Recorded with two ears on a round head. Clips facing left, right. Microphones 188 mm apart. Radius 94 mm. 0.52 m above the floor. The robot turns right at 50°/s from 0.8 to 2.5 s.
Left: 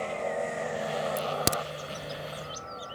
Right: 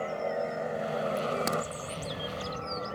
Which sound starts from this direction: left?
A crack, at 1.2 s.